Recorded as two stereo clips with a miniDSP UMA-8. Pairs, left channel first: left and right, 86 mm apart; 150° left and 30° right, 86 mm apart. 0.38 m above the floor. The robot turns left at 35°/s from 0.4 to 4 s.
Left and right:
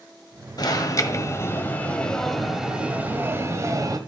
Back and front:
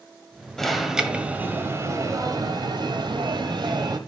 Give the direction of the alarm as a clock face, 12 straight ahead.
10 o'clock.